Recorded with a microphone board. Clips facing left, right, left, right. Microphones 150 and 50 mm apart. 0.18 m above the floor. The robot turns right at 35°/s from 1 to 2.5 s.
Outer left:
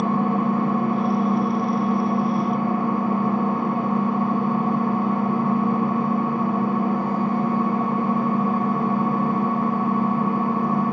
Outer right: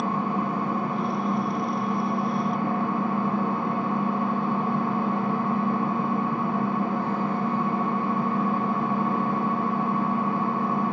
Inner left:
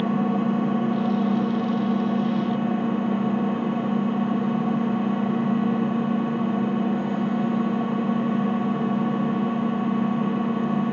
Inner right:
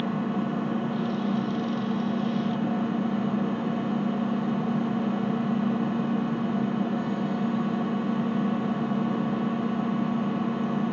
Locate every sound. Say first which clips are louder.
0.0 s an engine running: outer left 5 dB, inner left 5 dB; 75° left, 2.5 m; by 10.9 s 125° left, 2.5 m